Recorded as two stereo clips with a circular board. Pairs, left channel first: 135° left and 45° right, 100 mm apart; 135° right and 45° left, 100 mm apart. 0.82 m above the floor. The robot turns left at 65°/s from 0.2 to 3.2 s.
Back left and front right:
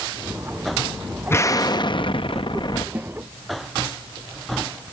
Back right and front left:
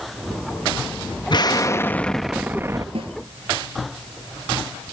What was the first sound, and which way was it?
An explosion, 165° right.